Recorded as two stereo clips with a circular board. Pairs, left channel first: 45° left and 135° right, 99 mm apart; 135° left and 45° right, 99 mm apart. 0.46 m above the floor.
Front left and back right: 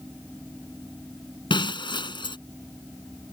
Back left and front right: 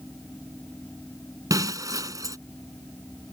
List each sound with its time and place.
1.5 s breaking glass: 10° left